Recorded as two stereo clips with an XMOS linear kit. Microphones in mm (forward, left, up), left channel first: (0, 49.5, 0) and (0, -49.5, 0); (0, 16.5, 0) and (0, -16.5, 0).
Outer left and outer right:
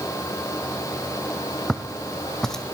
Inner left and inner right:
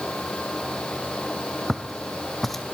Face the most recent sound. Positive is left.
turn(degrees=5)  # may be behind; listen again after turning